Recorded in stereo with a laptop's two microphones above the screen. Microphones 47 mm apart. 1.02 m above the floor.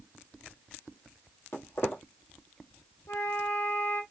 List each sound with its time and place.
1.5 s footsteps: 50° left (ahead or behind), 1.6 m
3.1 s a flute: 75° left (ahead or behind), 0.9 m